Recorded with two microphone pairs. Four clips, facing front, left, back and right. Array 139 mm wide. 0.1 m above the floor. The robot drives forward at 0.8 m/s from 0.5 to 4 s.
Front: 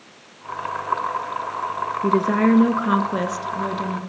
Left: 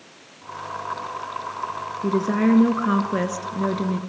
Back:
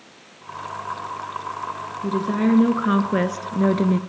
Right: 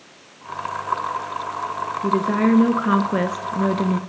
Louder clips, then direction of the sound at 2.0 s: Right 1 dB, front 3 dB; 15° right.